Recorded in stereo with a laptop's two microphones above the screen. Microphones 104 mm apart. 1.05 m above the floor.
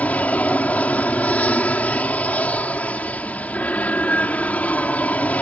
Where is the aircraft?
15° left (ahead or behind).